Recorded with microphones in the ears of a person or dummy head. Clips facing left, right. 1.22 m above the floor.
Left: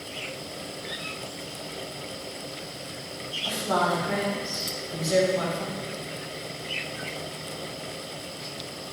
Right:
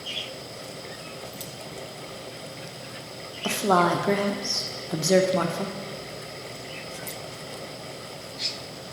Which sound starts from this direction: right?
A woman speaking, at 3.4 s.